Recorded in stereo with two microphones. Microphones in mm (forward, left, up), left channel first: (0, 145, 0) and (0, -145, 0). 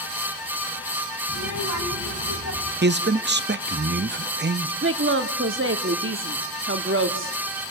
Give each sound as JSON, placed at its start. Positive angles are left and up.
{"t": 1.3, "sound": "a child speaking", "side_deg": 70, "distance_m": 3.0}
{"t": 2.8, "sound": "a man speaking", "side_deg": -35, "distance_m": 0.6}
{"t": 4.8, "sound": "a woman speaking", "side_deg": -45, "distance_m": 1.2}